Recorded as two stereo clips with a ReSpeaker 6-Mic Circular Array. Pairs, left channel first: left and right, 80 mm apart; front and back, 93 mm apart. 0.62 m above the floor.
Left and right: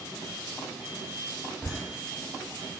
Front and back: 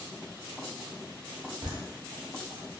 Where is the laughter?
Straight behind, 0.9 m.